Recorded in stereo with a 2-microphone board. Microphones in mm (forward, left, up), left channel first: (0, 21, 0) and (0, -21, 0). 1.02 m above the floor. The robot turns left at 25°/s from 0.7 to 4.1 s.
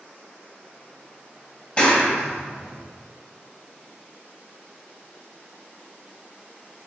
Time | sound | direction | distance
1.8 | a clap | 25° left (ahead or behind) | 1.2 m